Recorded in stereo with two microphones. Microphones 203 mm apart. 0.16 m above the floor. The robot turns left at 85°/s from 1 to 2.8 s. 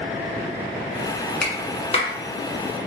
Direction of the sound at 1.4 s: 5° left (ahead or behind).